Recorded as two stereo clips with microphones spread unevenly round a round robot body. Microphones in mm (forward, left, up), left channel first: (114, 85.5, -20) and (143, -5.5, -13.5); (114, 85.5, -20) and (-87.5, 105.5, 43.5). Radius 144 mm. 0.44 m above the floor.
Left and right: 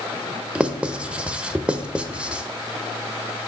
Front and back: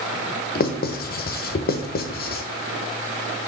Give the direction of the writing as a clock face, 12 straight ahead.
12 o'clock.